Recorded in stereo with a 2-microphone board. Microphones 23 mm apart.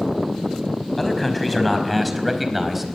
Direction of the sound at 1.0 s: 10° left (ahead or behind).